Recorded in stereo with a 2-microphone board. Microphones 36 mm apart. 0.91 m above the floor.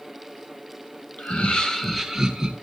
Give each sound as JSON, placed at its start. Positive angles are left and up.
{"t": 1.2, "sound": "laughter", "side_deg": 35, "distance_m": 1.1}